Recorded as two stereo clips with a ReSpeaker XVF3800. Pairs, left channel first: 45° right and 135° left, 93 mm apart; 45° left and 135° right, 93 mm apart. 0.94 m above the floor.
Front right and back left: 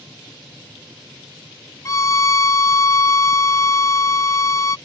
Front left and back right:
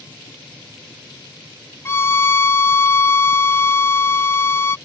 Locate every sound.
1.9 s a violin: 10° right